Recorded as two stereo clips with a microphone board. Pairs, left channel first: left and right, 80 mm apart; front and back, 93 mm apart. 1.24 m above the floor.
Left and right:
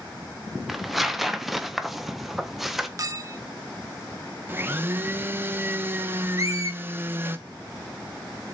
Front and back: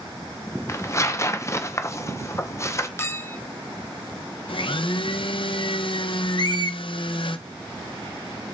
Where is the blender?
25° right, 0.5 m.